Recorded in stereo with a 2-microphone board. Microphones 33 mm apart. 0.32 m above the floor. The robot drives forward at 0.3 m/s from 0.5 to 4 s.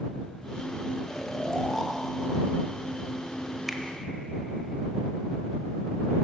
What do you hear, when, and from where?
1.1 s snoring: 10° left (ahead or behind), 0.8 m
3.7 s a finger snap: 5° right (ahead or behind), 1.0 m